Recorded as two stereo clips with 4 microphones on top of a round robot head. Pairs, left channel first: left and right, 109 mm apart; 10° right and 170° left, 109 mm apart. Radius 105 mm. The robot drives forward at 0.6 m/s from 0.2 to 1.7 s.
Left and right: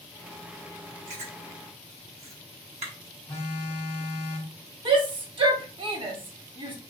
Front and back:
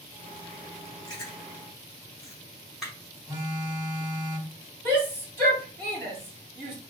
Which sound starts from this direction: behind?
A phone buzzing, at 3.3 s.